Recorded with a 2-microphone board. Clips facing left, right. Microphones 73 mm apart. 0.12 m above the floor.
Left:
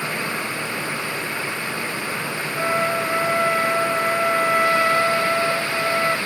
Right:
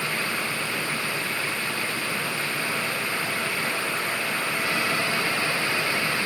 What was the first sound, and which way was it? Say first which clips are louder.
A trumpet: left 7 dB; 65° left (ahead or behind).